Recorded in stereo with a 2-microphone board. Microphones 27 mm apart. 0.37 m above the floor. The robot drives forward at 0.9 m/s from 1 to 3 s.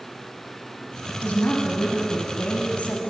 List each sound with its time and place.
1.2 s a woman speaking: 60° left (ahead or behind), 3 m